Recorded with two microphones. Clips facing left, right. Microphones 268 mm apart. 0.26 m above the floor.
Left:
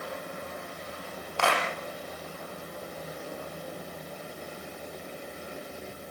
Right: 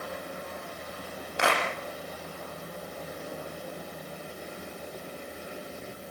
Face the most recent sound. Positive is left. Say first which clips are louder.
# even
turn(degrees=-20)  # may be behind; listen again after turning